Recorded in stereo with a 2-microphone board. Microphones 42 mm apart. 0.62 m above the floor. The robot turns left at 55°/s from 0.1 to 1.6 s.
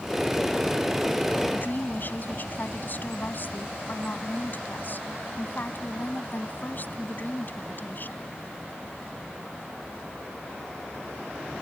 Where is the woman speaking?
40° left (ahead or behind); by 8.3 s 45° left (ahead or behind).